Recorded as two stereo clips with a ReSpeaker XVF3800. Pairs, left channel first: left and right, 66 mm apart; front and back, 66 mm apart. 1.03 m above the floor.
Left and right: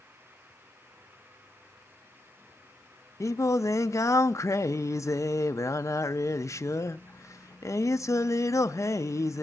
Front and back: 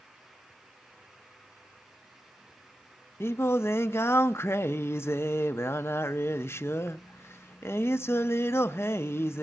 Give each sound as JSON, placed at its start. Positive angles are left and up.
{"t": 3.2, "sound": "singing", "azimuth_deg": 45, "distance_m": 0.5}